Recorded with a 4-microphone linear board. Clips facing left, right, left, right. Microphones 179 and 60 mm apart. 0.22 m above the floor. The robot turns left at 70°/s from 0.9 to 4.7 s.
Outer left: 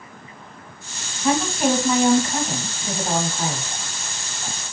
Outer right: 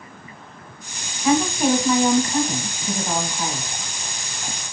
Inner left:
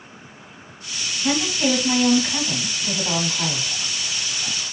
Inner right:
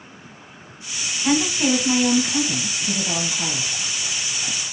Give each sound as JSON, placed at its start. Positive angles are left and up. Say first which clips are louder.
{"t": 1.2, "sound": "a woman speaking", "louder": "outer right 2 dB, inner right 2 dB", "azimuth_deg": -150, "distance_m": 1.3}